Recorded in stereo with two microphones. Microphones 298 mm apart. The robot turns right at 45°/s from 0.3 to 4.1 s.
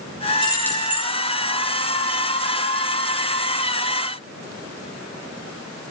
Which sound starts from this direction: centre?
Keys jangling, at 0.4 s.